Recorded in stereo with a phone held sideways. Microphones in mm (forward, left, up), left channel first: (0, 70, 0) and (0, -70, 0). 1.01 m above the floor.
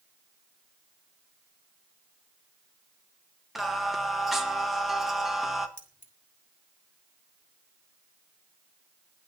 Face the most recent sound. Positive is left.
turn(degrees=70)  # may be behind; listen again after turning